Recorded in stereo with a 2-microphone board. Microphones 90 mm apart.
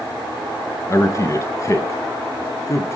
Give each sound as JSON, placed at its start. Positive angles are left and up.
{"t": 0.9, "sound": "a man speaking", "side_deg": 35, "distance_m": 1.4}